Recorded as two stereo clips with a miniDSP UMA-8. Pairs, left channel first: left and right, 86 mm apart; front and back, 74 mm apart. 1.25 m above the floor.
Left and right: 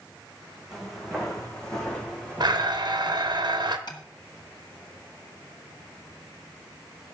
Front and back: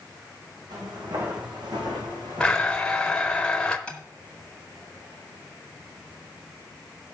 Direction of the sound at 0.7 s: 175° right.